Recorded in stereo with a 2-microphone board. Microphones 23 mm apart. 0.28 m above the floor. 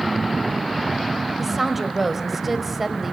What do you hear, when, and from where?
1.4 s a woman speaking: 10° right (ahead or behind), 1.6 m